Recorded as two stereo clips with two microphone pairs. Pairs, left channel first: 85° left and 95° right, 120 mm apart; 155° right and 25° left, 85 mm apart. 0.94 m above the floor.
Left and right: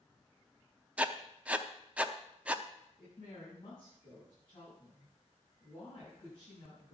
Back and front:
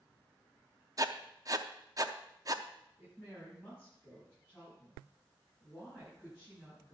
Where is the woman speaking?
135° left, 7 m.